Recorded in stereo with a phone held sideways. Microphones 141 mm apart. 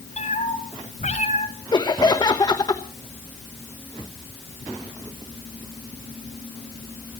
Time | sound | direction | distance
0.2 | a cat meowing | 55° left (ahead or behind) | 4.5 m
1.7 | laughter | 30° left (ahead or behind) | 1.1 m